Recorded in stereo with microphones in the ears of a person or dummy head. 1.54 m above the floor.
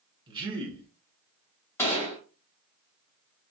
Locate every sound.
0.3 s a man speaking: 20° right (ahead or behind), 0.7 m
1.8 s a gunshot: 20° left (ahead or behind), 1.2 m